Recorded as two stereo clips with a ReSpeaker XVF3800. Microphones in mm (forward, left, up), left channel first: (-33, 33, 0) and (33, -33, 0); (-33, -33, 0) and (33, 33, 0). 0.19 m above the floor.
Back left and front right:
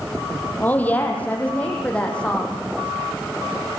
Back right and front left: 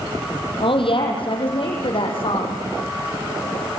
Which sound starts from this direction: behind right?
A woman speaking, at 0.6 s.